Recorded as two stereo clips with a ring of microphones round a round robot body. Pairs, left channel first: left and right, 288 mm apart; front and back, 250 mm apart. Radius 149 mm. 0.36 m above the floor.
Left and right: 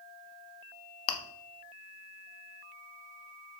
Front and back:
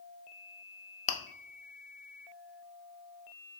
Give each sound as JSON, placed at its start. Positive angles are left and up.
{"t": 1.1, "sound": "chewing", "azimuth_deg": 65, "distance_m": 0.5}